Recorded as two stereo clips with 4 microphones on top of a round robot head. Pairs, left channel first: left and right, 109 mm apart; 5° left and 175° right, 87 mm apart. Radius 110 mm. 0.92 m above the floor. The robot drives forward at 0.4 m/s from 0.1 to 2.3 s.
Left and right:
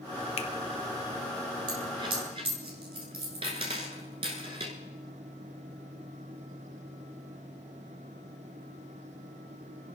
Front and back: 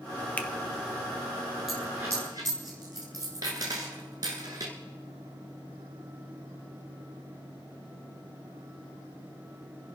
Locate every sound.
0.4 s a finger snap: 75° left, 1.1 m; by 0.5 s 80° left, 1.1 m
1.7 s a dropped coin: 90° right, 0.9 m; by 4.7 s 125° right, 0.9 m